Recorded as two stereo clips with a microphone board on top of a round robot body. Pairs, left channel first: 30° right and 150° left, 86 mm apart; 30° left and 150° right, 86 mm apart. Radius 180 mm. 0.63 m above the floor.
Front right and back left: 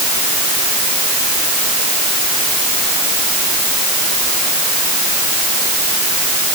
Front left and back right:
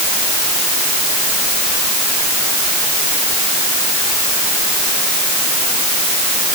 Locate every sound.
Only background noise.